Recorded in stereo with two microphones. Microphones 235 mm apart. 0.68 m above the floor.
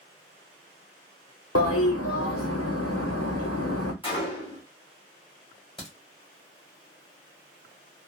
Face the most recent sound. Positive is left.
turn(degrees=20)  # may be behind; listen again after turning